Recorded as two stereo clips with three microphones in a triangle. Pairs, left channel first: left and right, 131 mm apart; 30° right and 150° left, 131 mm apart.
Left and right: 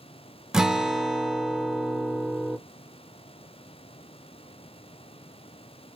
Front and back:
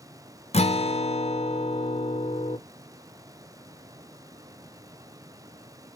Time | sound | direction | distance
0.5 | a guitar | 5° right | 0.6 m